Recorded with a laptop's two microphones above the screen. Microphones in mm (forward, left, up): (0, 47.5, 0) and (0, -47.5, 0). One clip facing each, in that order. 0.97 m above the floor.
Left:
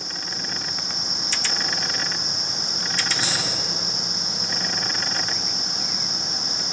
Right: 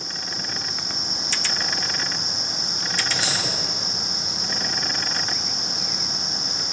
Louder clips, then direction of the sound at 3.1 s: Right 1 dB; 80° right.